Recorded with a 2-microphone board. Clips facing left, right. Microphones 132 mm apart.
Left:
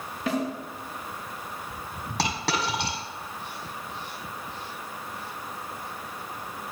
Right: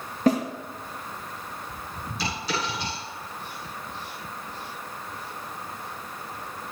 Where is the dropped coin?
85° left, 6 m.